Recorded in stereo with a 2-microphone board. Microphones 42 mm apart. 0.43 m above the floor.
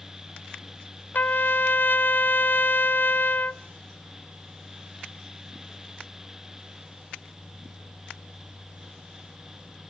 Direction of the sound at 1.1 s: 45° left (ahead or behind).